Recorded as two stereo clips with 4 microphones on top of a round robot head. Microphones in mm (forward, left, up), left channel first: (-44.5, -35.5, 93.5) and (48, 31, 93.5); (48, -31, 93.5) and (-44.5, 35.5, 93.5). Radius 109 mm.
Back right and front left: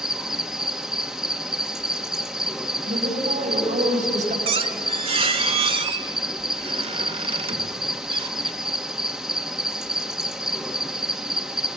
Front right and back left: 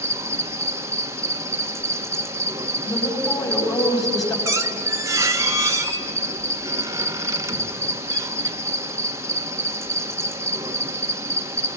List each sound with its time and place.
0.0 s an insect: 120° left, 1.8 m
2.9 s a woman speaking: 25° left, 6 m
4.5 s a squeak: 80° left, 1.1 m